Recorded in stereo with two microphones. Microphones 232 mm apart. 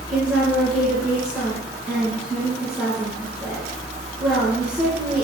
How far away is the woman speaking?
About 3.5 m.